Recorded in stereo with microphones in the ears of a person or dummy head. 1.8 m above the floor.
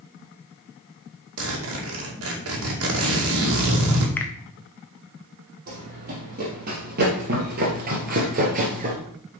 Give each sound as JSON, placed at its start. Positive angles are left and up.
{"t": 1.4, "sound": "a zipper", "side_deg": -75, "distance_m": 2.5}
{"t": 4.2, "sound": "a finger snap", "side_deg": 10, "distance_m": 0.9}
{"t": 5.7, "sound": "running footsteps", "side_deg": -45, "distance_m": 4.0}